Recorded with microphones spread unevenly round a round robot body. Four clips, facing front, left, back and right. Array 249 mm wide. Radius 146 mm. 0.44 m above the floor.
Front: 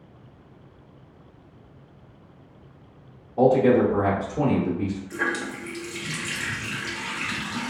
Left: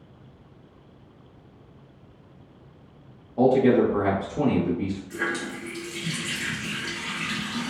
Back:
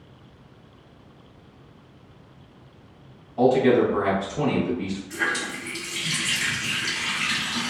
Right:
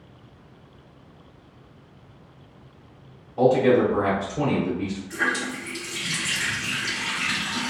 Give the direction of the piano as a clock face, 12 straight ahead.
I don't hear a piano.